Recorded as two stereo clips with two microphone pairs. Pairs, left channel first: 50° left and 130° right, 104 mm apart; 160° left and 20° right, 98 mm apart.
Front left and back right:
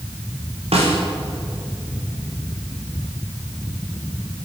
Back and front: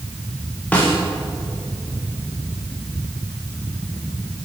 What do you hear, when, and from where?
0.7 s a snare drum: 125° right, 8.5 m